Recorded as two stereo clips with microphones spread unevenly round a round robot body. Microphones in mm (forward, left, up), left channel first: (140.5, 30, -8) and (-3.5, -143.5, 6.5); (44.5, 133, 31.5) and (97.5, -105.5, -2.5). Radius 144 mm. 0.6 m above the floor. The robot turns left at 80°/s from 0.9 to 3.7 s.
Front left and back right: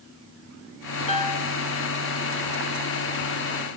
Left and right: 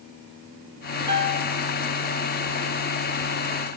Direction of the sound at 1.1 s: 10° right.